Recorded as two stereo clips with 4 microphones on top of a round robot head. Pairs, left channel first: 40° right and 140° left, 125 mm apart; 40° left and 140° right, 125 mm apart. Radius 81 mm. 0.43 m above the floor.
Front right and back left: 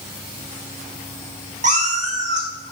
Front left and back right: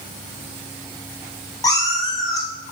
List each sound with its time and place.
1.6 s a cat meowing: 105° left, 1.8 m